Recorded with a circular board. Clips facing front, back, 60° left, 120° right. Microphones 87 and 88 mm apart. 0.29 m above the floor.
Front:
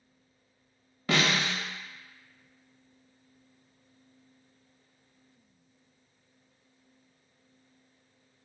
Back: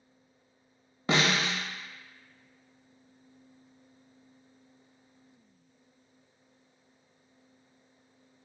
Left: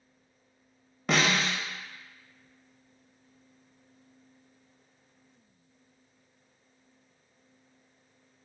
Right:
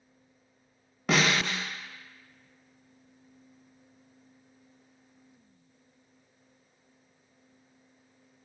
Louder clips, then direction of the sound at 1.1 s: Even, even; 155° left.